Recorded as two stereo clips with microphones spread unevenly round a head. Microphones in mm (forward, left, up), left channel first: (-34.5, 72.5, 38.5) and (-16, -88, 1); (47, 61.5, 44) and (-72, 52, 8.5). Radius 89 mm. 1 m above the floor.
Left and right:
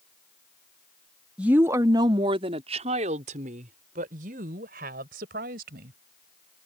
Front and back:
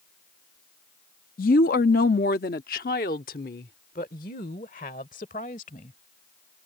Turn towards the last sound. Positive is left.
turn(degrees=-40)